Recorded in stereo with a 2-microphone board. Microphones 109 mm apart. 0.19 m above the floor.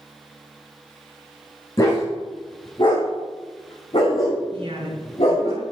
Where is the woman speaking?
50° right (ahead or behind), 2.5 m.